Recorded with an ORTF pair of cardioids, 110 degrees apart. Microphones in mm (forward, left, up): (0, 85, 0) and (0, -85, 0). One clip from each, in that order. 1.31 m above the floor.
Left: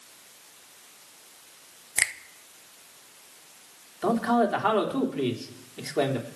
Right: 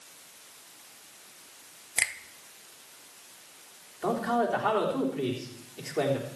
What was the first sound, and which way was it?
A finger snap, 15° left.